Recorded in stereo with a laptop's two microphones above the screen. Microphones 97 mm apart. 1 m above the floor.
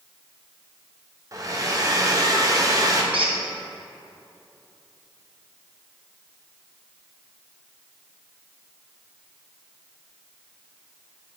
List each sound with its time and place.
1.3 s a hair dryer: 35° right (ahead or behind), 0.8 m
3.1 s a squeak: 60° right (ahead or behind), 0.7 m